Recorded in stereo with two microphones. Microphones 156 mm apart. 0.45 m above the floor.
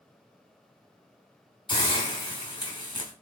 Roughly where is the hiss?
Left.